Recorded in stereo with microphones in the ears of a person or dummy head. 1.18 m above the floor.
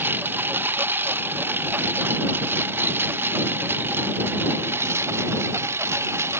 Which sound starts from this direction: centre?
A lawn mower, at 0.0 s.